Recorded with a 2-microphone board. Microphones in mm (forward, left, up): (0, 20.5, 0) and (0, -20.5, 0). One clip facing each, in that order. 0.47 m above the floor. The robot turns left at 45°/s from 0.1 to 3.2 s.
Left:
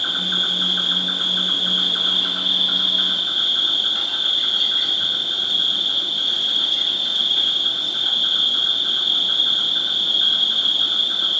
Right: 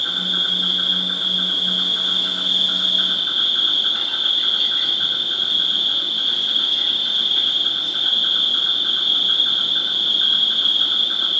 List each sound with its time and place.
0.0 s an insect: 130° left, 0.8 m; by 11.4 s 10° right, 0.8 m